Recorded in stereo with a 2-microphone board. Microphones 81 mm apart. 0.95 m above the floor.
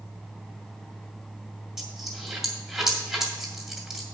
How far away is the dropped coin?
About 2 m.